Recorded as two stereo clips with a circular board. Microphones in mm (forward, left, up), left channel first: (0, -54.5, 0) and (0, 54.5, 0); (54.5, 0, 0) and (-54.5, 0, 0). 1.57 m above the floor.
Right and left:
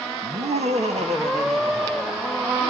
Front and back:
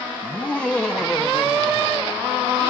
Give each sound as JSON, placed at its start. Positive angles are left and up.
{"t": 0.2, "sound": "laughter", "azimuth_deg": 75, "distance_m": 1.4}